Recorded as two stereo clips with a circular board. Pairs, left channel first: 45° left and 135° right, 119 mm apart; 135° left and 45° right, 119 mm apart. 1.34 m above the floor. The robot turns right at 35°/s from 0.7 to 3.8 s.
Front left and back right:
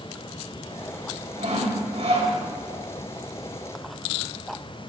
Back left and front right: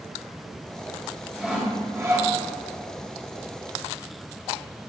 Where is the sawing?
130° right, 3 m; by 2.3 s 100° right, 3 m.